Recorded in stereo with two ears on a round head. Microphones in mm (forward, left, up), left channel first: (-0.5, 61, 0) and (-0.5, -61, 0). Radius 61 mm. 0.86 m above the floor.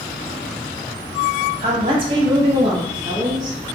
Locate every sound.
1.6 s a woman speaking: 35° right (ahead or behind), 0.7 m; by 3.6 s 30° right (ahead or behind), 1.4 m